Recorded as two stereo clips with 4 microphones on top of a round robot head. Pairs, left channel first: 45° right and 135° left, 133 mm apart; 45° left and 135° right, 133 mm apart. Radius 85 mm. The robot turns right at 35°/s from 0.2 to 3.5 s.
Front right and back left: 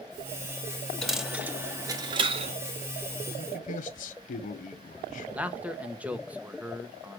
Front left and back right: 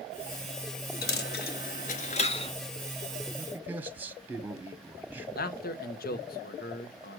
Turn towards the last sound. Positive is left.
turn(degrees=55)